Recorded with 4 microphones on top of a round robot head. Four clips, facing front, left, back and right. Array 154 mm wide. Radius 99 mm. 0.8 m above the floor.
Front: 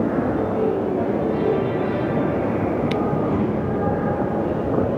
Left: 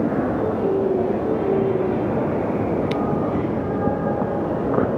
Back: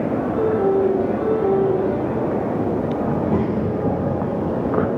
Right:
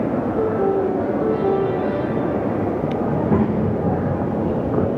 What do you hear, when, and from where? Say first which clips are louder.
0.4 s a piano: right 2 dB, back 4 dB; 120° right, 6.5 m
3.1 s a child speaking: right 3 dB, back 1 dB; 105° right, 3.5 m